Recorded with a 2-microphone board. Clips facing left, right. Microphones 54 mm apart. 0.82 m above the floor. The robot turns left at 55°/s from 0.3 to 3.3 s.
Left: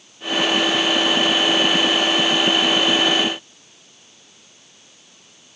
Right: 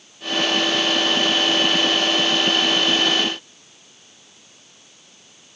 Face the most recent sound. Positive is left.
No sound to turn to.